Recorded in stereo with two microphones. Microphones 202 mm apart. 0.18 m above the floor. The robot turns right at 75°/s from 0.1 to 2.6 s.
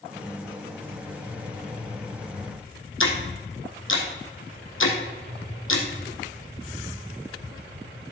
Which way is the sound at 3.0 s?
75° left (ahead or behind).